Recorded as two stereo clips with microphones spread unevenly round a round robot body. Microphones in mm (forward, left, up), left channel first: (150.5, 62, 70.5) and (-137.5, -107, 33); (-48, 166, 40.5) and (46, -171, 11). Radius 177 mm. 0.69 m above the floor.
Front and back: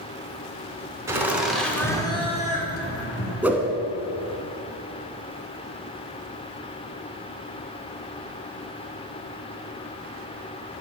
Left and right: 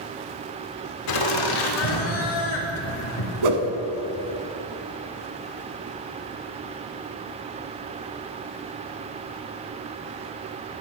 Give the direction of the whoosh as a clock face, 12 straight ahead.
2 o'clock.